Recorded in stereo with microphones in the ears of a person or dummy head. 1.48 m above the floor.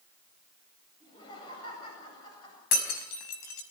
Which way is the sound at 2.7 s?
45° left (ahead or behind).